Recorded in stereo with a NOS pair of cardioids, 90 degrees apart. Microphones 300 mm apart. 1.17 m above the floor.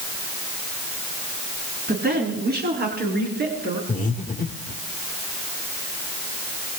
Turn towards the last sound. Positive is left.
turn(degrees=25)